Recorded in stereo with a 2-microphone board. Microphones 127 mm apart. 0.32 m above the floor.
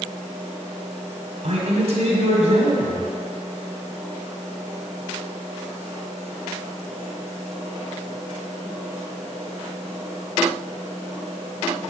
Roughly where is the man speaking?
Right.